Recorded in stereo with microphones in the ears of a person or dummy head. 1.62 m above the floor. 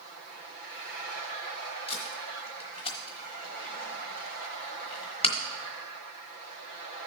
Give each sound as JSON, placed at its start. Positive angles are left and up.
{"t": 1.9, "sound": "tape being pulled", "side_deg": 30, "distance_m": 1.1}